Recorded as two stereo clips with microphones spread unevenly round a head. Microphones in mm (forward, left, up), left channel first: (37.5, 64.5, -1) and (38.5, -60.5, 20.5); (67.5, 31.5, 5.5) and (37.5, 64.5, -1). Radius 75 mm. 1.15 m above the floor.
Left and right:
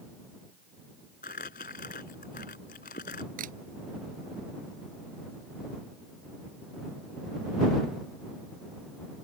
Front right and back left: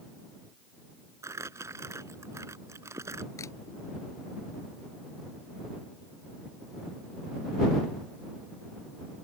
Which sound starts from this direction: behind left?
Crumpling, at 1.2 s.